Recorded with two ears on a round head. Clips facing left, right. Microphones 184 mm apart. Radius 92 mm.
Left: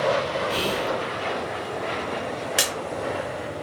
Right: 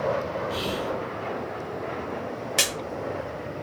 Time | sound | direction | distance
0.5 | whispering | 40° left (ahead or behind) | 0.6 m
2.6 | a splash | 5° left (ahead or behind) | 0.9 m